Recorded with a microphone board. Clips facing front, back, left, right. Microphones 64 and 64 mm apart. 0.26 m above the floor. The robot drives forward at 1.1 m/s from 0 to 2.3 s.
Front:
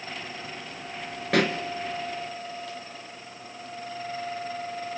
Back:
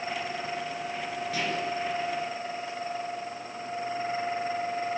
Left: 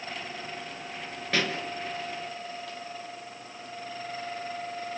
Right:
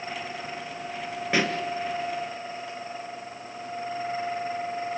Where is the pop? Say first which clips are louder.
Front 9 dB, right 3 dB; 15° right, 1.7 m; by 1.6 s 20° right, 1.4 m.